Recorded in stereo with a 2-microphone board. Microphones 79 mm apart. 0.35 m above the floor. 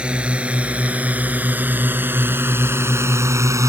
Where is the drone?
15° right (ahead or behind); by 3.7 s 40° right (ahead or behind).